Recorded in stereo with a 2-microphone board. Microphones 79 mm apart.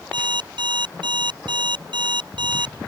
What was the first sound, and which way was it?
An alarm clock, 85° right.